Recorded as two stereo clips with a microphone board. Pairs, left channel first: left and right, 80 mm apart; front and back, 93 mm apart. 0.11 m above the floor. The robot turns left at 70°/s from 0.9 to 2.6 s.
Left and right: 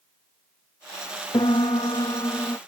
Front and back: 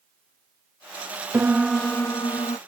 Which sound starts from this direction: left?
A piano, at 1.3 s.